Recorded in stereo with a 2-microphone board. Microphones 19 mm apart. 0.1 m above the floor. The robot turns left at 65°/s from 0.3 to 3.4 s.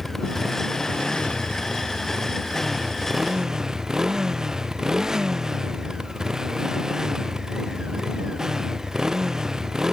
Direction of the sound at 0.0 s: 160° left.